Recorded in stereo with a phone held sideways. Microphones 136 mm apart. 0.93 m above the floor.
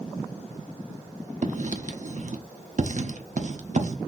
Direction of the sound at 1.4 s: 60° right (ahead or behind).